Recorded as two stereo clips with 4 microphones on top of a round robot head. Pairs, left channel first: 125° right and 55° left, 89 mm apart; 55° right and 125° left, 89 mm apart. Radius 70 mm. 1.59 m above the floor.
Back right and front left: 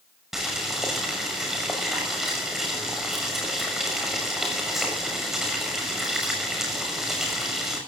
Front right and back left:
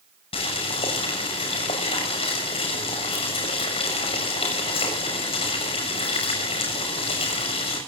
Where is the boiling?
30° right, 6.5 m.